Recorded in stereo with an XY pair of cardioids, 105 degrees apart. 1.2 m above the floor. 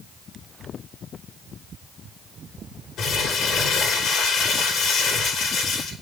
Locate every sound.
3.0 s crumpling: 65° left, 3 m